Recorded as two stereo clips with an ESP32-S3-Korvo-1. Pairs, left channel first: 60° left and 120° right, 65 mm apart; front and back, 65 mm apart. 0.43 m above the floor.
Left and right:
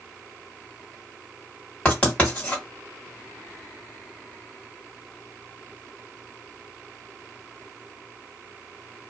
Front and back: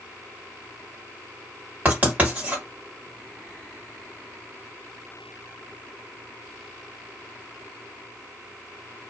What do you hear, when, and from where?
1.9 s writing: 125° left, 2 m